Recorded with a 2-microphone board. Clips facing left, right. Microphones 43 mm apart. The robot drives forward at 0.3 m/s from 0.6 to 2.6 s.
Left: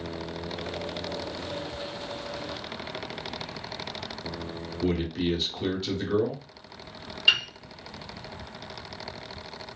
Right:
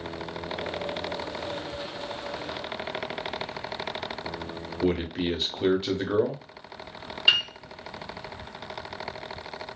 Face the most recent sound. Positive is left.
turn(degrees=-10)  # may be behind; listen again after turning